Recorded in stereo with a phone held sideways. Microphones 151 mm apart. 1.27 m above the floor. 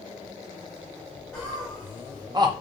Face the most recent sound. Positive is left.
turn(degrees=-35)  # may be behind; listen again after turning